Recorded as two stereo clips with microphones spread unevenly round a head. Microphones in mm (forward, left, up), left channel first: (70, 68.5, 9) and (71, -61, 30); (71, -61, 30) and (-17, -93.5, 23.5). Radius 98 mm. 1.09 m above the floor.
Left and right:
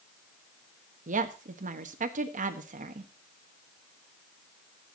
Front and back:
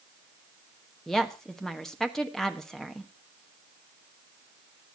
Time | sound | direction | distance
1.1 | a woman speaking | 65° right | 1.3 m